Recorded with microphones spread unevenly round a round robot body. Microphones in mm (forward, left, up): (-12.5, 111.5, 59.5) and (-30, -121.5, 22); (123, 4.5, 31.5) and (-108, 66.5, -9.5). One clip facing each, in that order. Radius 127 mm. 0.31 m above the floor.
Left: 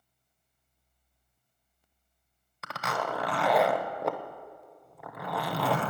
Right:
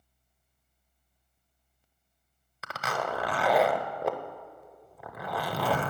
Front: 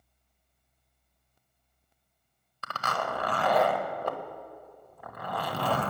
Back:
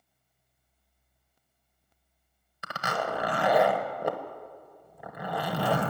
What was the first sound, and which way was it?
A zipper, 160° right.